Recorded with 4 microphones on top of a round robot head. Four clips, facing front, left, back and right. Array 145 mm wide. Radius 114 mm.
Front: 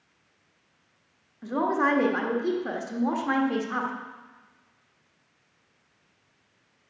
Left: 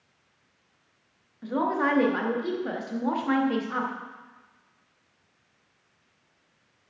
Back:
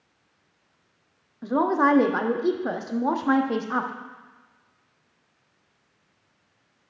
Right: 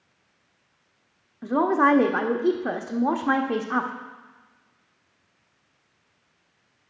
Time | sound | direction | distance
1.4 | a woman speaking | 130° right | 1.3 m